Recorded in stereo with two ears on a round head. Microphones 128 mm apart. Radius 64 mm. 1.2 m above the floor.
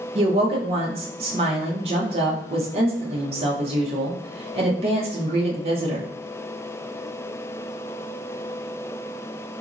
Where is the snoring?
I don't hear snoring.